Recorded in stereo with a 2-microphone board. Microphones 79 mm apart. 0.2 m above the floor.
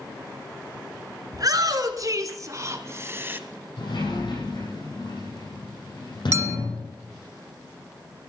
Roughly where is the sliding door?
Left.